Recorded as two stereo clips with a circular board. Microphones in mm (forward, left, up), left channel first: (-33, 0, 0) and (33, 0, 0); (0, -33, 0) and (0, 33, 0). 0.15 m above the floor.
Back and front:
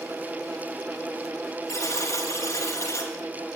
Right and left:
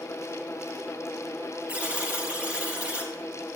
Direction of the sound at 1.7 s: 160° left.